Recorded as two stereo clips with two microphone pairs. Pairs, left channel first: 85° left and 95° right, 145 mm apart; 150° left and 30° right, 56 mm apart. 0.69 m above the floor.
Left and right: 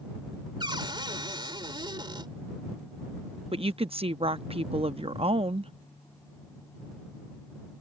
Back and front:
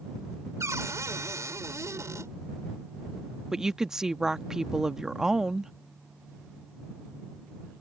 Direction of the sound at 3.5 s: 105° right.